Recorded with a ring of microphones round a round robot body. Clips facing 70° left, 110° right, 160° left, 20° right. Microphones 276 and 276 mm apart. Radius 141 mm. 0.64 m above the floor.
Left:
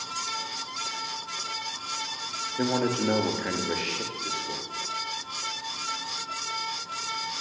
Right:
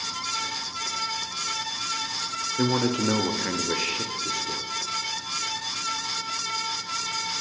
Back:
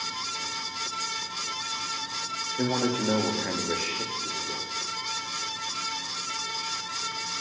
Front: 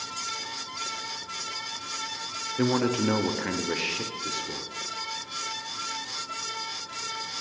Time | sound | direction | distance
2.6 | a man speaking | 60° right | 0.5 m